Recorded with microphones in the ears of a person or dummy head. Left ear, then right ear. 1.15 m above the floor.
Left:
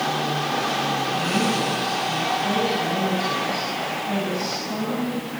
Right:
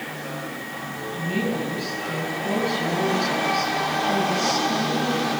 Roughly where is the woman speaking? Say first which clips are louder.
Left 5 dB; centre.